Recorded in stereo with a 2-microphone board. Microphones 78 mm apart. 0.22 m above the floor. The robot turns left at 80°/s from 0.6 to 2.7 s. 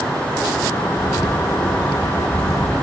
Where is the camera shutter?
135° left, 3 m; by 2.8 s 5° right, 3 m.